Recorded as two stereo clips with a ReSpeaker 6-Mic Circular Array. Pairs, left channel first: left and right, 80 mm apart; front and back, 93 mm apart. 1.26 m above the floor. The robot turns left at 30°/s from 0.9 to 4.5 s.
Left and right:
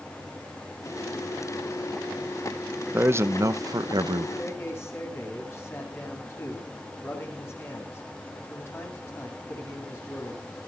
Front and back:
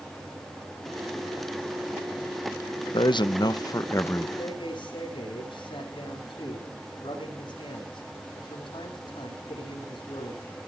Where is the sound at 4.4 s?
35° left, 8.5 m; by 10.4 s 30° left, 8.5 m.